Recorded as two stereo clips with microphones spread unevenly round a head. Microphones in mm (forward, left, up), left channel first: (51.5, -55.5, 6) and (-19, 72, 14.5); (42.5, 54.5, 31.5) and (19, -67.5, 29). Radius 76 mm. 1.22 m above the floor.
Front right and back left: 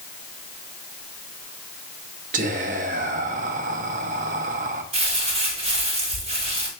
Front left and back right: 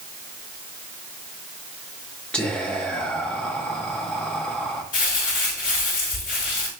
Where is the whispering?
160° left, 1.0 m.